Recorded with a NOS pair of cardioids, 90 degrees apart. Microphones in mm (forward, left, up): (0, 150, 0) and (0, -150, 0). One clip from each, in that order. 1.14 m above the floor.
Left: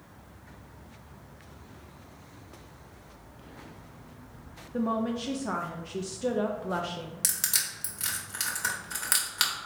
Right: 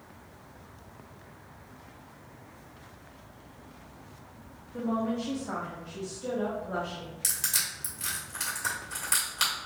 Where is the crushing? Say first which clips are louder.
Even; 40° left, 1.6 m.